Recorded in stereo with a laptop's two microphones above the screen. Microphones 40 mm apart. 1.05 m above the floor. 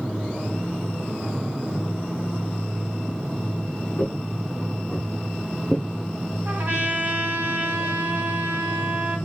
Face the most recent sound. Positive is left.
turn(degrees=-50)  # may be behind; listen again after turning